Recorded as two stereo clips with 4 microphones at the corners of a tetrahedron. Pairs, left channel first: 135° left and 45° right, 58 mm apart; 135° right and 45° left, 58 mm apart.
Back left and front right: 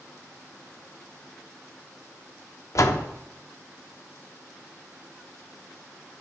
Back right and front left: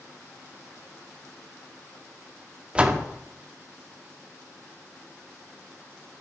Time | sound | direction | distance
2.8 | a door slam | 115° left | 0.7 m